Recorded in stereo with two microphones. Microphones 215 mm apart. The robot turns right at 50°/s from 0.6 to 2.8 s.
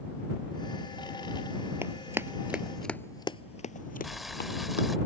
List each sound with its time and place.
1.8 s running footsteps: 10° right (ahead or behind); by 4.9 s 55° left (ahead or behind)
4.0 s boiling: centre (ahead or behind)